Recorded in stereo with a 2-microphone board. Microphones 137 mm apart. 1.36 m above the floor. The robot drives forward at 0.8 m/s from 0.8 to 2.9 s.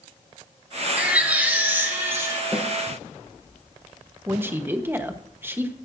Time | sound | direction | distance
1.0 | a baby crying | 10° right (ahead or behind) | 2 m
2.5 | a snare drum | 10° right (ahead or behind) | 4 m
4.3 | a man speaking | 15° right (ahead or behind) | 1.0 m